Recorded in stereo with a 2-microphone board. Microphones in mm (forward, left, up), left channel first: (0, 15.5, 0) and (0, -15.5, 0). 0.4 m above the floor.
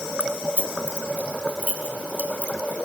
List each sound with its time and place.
0.2 s keys jangling: 45° right (ahead or behind), 2.0 m; by 2.8 s 65° right (ahead or behind), 4 m